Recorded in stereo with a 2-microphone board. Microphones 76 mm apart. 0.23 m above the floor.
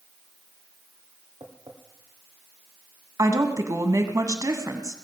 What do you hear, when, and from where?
1.4 s tapping: 70° right (ahead or behind), 3 m
3.2 s a woman speaking: 45° right (ahead or behind), 1.4 m